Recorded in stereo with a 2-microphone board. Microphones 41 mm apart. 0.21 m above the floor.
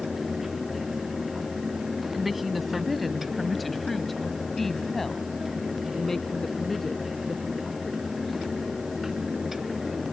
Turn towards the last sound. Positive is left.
turn(degrees=5)  # may be behind; listen again after turning